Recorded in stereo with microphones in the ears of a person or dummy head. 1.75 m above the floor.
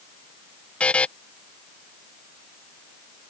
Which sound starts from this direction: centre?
A buzzer, at 0.8 s.